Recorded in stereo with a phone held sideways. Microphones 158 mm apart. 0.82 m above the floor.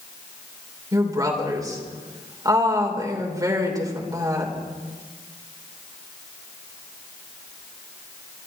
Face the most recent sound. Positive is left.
turn(degrees=-25)  # may be behind; listen again after turning